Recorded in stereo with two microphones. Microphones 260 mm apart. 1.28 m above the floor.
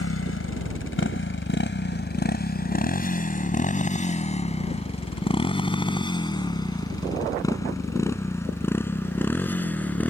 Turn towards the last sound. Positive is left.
turn(degrees=5)  # may be behind; listen again after turning